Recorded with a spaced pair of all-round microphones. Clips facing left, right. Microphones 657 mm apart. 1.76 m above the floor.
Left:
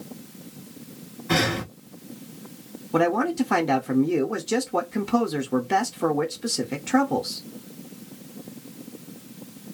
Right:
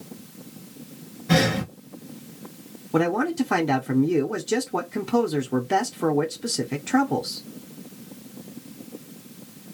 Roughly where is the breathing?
Right.